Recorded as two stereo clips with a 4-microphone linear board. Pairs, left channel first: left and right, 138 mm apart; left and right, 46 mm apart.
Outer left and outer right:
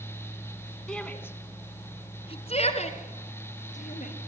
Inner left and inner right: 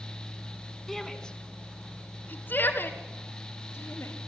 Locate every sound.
0.9 s a shout: 5° left (ahead or behind), 1.3 m; by 4.1 s 60° left (ahead or behind), 2.5 m